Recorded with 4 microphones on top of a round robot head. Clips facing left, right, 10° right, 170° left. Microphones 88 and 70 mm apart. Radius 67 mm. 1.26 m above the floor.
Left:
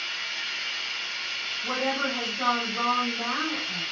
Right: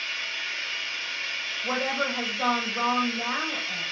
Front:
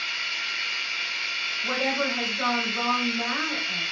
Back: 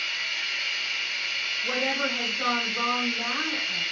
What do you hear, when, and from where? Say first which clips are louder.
0.0 s running water: right 1 dB, even; 45° left, 3 m
1.6 s a woman speaking: even, front 2 dB; 50° left, 3 m